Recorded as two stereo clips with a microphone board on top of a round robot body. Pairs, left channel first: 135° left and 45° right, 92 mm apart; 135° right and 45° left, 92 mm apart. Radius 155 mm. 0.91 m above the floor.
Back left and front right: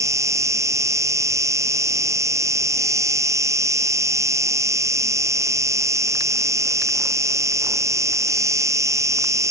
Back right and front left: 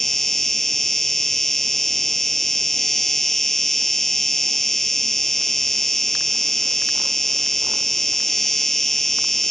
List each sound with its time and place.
0.0 s an insect: 50° right